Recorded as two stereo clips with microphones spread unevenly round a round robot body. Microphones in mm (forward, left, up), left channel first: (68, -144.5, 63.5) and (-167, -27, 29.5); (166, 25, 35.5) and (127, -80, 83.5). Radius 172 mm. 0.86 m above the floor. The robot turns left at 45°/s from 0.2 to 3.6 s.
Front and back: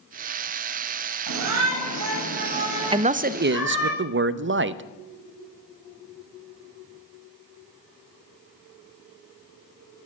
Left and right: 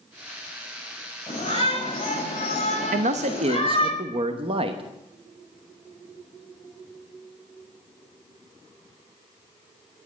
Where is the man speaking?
140° right, 0.7 m; by 4.8 s 170° right, 0.7 m.